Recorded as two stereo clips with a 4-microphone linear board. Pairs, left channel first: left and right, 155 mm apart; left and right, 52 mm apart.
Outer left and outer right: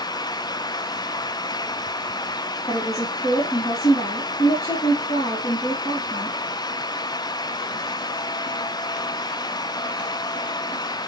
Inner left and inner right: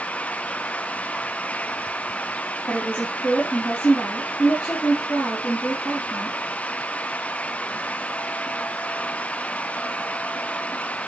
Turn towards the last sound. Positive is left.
turn(degrees=25)  # may be behind; listen again after turning